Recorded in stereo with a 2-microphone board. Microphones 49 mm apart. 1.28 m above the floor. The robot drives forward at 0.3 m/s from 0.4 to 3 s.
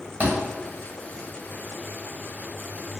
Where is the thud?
30° right (ahead or behind), 1.5 m.